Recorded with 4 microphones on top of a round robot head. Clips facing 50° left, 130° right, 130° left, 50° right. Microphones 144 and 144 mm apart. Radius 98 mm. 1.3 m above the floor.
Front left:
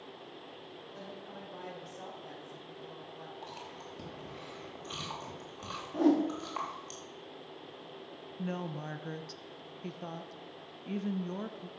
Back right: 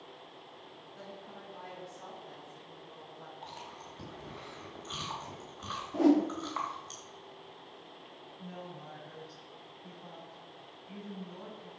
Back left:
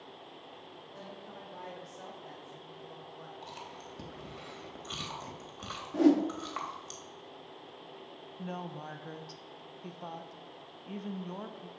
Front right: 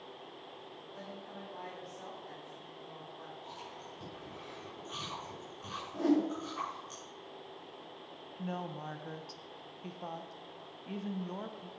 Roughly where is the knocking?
No knocking in this recording.